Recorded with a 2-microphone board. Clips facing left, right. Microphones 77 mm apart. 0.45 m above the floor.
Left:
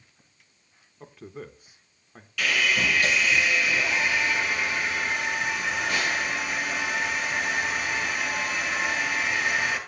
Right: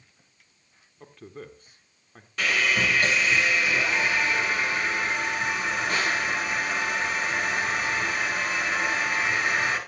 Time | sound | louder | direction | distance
1.0 | a man speaking | left 2 dB | 5° left (ahead or behind) | 0.8 m
2.4 | sawing | right 1 dB | 40° right (ahead or behind) | 6.5 m